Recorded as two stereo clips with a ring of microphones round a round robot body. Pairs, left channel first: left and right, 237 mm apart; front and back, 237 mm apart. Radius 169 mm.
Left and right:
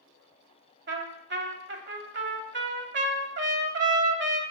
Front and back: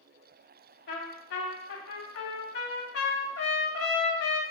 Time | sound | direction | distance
0.9 | a trumpet | 50° right | 0.9 m